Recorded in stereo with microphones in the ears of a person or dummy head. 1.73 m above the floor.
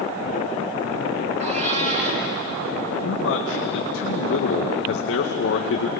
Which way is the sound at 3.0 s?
70° left (ahead or behind).